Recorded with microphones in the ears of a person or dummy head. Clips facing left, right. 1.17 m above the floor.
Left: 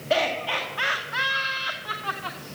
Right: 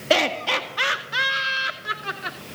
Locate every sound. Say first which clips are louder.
0.1 s laughter: right 3 dB; 60° right (ahead or behind), 1.7 m; by 2.4 s 25° right (ahead or behind), 2.5 m